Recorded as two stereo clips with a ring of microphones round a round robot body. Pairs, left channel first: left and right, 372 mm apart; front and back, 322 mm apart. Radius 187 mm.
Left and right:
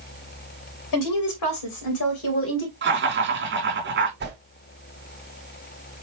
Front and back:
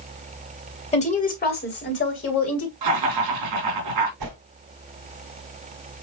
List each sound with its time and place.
0.9 s a woman speaking: 65° left, 2.5 m; by 2.7 s 35° left, 2.5 m
2.8 s laughter: 150° right, 3.5 m
4.2 s a whoosh: 150° right, 4 m